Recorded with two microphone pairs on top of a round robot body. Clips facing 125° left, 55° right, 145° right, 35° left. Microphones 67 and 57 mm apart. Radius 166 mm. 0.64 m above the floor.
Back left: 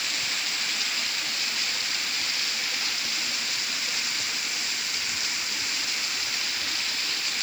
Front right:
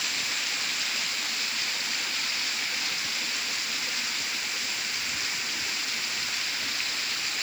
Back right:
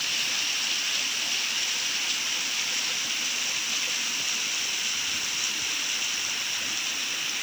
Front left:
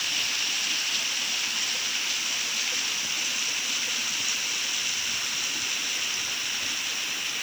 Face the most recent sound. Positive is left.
No sound to turn to.